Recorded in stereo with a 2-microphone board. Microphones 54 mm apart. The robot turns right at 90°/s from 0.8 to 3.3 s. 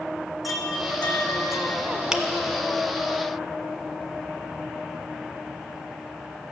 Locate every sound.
0.4 s a chime: straight ahead, 1.4 m; by 1.9 s 100° left, 1.4 m
2.1 s a finger snap: 10° right (ahead or behind), 0.9 m; by 2.2 s 15° right (ahead or behind), 0.9 m